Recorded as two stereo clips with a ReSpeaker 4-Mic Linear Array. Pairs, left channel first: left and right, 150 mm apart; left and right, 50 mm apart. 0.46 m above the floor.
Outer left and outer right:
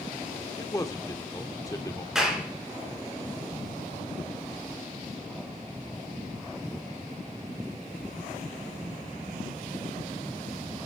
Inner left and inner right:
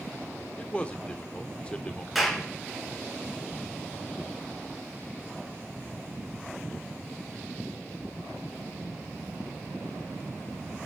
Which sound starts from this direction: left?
A man speaking, at 0.6 s.